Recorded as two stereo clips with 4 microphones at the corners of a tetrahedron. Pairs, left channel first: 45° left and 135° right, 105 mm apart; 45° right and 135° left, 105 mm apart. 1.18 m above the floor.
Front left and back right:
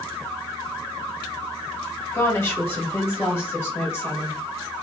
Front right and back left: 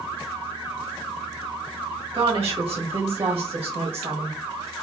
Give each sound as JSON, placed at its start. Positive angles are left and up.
{"t": 2.1, "sound": "a woman speaking", "azimuth_deg": 110, "distance_m": 1.4}